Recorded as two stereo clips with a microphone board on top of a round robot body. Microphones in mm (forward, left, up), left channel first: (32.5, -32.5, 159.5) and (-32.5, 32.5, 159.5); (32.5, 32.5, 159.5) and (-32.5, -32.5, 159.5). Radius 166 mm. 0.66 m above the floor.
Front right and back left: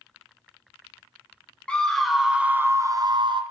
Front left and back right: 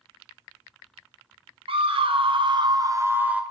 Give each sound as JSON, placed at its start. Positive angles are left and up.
{"t": 1.7, "sound": "a scream", "azimuth_deg": -125, "distance_m": 1.0}